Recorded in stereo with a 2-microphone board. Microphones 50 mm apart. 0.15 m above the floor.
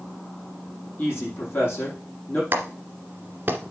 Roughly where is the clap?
Right.